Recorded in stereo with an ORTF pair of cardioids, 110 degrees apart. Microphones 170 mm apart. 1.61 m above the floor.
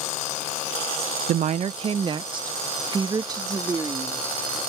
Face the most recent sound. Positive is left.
turn(degrees=-20)